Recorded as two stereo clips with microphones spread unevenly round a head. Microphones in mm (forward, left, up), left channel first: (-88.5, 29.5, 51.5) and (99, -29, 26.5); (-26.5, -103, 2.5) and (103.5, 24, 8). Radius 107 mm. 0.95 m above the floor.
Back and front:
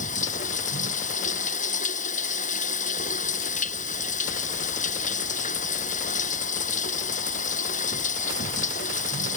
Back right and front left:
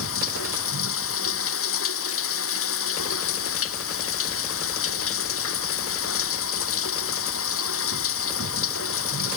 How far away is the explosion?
I don't hear an explosion.